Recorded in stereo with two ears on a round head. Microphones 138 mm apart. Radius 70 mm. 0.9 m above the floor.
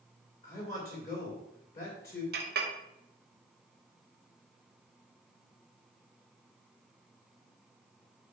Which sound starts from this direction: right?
A clink, at 2.3 s.